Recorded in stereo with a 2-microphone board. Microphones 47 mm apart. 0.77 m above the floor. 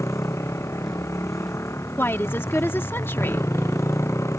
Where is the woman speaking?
55° left (ahead or behind).